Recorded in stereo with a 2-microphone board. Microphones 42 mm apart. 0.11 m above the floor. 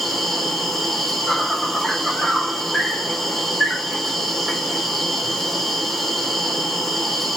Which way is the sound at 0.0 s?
5° left (ahead or behind).